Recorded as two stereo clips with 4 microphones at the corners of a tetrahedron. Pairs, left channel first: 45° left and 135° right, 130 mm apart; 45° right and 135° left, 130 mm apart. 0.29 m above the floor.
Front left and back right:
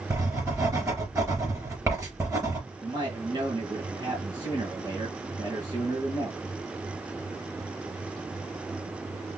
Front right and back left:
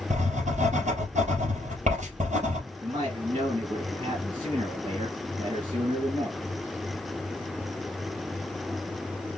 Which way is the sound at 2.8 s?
175° left.